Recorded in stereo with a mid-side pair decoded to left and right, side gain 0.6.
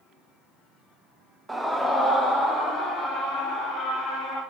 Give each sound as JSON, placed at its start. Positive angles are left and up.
{"t": 1.5, "sound": "a scream", "azimuth_deg": -5, "distance_m": 1.0}